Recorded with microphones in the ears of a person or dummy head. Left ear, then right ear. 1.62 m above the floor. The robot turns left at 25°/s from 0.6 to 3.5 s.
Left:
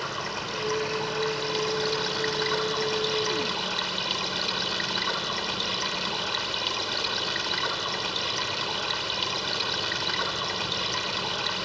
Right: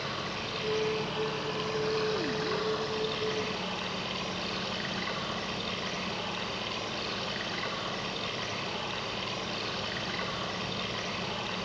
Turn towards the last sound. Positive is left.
turn(degrees=55)